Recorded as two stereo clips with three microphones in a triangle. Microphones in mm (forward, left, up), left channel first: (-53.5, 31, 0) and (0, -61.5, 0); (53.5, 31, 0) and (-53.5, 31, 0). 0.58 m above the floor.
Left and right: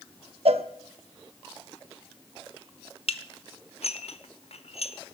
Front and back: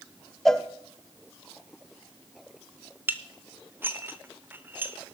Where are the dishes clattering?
110° left, 1.0 m.